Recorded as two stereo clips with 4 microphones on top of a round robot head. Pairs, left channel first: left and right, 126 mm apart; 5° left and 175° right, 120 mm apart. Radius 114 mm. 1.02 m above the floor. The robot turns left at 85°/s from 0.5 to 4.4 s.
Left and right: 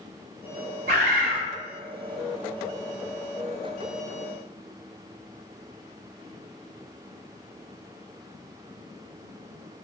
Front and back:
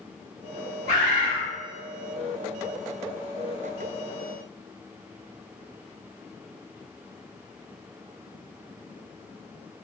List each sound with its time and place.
0.9 s a bird: 120° right, 1.0 m; by 1.4 s 165° right, 1.0 m